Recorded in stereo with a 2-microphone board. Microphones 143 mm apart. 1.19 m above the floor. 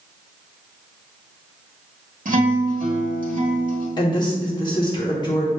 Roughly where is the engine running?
I don't hear an engine running.